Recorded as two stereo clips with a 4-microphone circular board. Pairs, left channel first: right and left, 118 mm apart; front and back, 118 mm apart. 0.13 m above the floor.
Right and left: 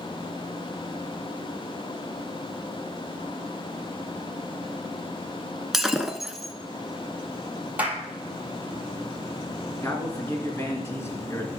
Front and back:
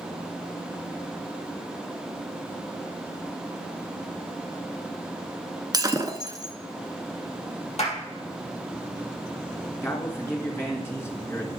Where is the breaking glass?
175° left, 0.9 m.